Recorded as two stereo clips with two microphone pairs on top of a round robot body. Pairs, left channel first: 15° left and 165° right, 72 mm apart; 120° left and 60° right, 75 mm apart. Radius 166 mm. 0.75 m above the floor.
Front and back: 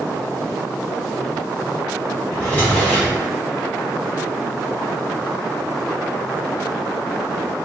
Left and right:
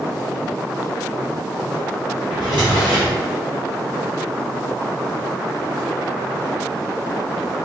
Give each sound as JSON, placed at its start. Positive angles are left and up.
{"t": 2.3, "sound": "a drawer", "azimuth_deg": -55, "distance_m": 1.0}